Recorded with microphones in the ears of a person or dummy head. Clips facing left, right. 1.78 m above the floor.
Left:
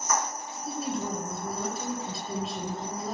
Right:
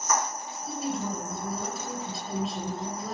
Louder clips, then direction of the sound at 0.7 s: Even; centre (ahead or behind).